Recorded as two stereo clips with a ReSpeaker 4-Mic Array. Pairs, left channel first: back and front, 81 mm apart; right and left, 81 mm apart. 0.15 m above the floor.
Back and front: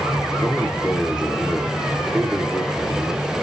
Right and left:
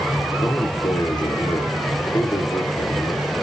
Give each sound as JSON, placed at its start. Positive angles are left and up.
{"t": 0.4, "sound": "a man speaking", "azimuth_deg": -80, "distance_m": 2.5}